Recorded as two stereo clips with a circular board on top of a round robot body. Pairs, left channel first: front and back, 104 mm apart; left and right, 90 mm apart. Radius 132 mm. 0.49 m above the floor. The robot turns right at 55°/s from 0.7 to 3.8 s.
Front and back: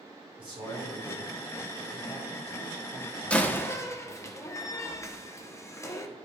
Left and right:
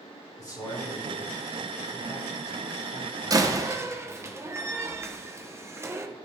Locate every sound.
0.4 s a man speaking: 140° left, 3.5 m; by 4.3 s 50° right, 3.5 m
3.3 s a door slam: 75° right, 0.9 m; by 6.1 s 45° right, 0.9 m